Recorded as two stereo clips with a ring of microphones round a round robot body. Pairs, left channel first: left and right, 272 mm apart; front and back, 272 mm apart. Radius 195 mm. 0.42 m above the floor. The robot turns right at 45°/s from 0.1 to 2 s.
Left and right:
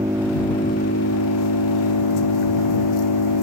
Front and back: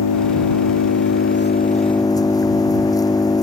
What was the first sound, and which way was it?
An engine running, 10° right.